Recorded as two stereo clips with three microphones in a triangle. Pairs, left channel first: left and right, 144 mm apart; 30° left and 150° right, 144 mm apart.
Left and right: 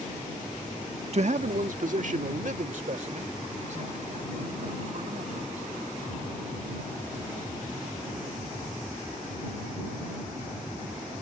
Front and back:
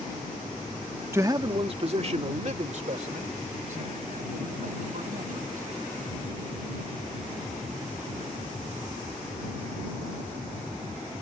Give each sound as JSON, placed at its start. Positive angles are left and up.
{"t": 1.1, "sound": "a man speaking", "azimuth_deg": -80}